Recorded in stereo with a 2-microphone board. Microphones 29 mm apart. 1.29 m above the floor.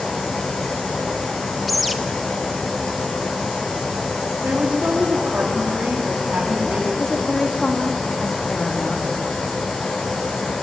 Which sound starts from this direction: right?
A woman speaking, at 4.4 s.